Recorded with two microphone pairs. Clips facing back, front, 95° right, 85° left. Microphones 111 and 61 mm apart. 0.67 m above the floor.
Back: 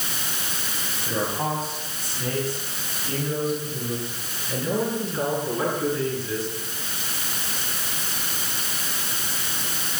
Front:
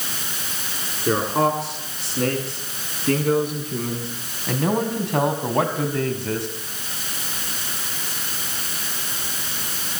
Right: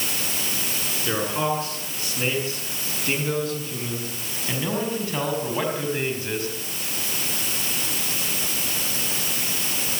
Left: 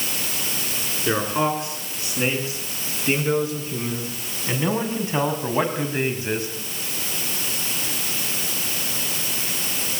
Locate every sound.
1.1 s a man speaking: 10° left, 8.5 m; by 6.5 s 15° left, 4.5 m